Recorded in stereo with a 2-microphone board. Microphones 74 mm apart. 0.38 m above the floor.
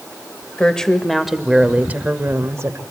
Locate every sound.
0.6 s a woman speaking: 15° left (ahead or behind), 1.3 m; by 2.8 s 45° right (ahead or behind), 1.3 m